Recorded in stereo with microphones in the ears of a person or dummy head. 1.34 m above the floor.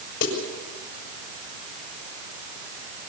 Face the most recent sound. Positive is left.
turn(degrees=70)  # may be behind; listen again after turning